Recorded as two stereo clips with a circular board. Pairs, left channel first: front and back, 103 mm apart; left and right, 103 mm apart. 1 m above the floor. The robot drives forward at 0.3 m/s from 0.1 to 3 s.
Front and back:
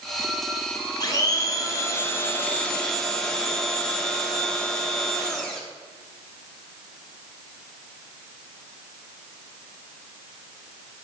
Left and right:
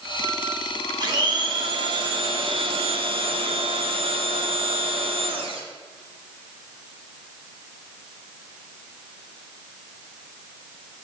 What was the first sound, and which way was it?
A blender, 50° right.